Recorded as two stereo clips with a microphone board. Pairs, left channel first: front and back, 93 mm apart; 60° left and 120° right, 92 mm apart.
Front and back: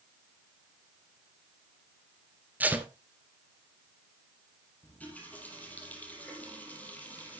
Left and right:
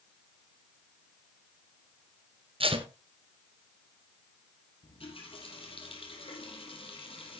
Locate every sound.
2.6 s tape being pulled: 105° right, 1.4 m
4.8 s a running tap: 75° left, 5 m